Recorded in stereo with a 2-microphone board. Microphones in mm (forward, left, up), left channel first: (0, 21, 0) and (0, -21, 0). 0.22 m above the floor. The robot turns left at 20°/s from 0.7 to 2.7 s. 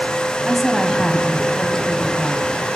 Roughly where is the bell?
I don't hear a bell.